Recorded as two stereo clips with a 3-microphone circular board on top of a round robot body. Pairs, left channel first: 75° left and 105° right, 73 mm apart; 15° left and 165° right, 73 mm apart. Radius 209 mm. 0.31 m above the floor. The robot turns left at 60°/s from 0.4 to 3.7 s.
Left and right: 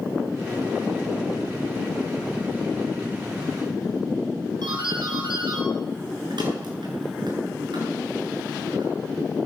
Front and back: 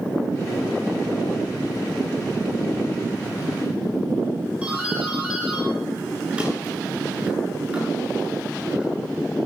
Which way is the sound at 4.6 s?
90° right.